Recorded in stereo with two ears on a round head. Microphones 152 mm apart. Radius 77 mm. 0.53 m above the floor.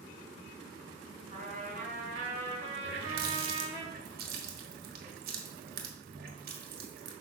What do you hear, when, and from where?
1.3 s a trumpet: 50° right (ahead or behind), 3.5 m
2.8 s a running tap: 60° right (ahead or behind), 1.4 m